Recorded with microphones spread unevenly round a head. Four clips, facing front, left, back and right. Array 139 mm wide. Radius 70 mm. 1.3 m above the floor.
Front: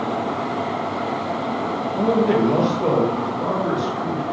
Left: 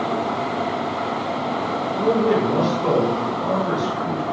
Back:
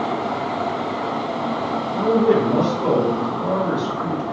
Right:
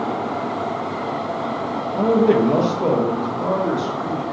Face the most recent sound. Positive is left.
turn(degrees=-90)